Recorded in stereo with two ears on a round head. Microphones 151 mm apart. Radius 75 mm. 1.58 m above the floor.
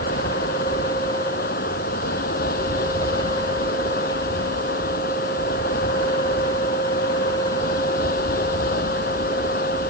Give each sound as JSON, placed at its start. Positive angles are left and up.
{"t": 0.0, "sound": "running water", "side_deg": 55}